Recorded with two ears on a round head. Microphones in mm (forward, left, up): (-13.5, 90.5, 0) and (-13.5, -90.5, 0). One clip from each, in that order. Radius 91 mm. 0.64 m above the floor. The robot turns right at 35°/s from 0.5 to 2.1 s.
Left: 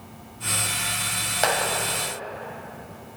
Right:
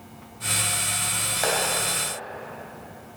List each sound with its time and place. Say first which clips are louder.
1.4 s a clap: left 2 dB; 30° left (ahead or behind), 3 m; by 1.7 s 20° left (ahead or behind), 3 m